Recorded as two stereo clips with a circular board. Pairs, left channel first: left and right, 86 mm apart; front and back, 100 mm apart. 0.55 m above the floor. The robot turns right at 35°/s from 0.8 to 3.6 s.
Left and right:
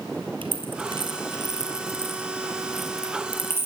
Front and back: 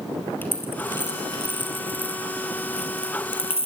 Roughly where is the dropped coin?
Right.